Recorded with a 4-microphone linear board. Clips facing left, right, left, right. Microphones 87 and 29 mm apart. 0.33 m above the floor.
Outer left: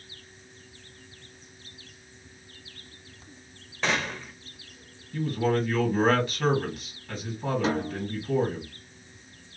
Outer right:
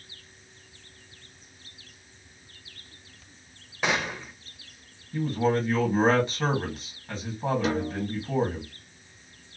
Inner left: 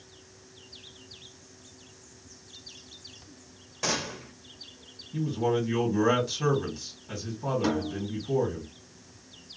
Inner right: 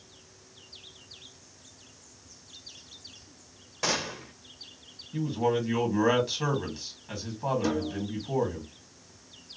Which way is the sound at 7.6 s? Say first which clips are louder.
Even, inner left 1 dB; 35° left (ahead or behind).